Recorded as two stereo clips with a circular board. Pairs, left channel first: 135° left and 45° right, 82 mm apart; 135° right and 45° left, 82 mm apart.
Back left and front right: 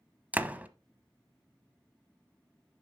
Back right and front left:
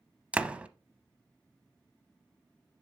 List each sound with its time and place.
0.3 s a door slam: 5° right, 0.7 m